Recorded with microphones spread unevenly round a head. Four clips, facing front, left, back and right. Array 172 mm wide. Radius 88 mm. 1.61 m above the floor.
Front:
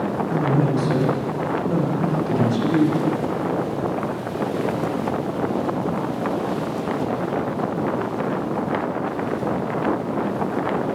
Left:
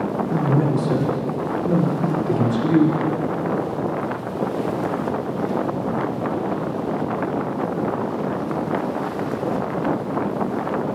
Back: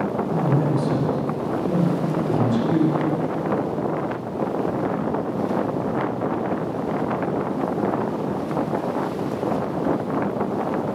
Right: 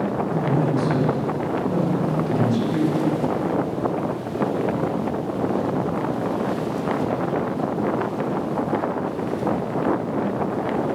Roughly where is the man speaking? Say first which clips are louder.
Left 3 dB, front 2 dB; ahead left.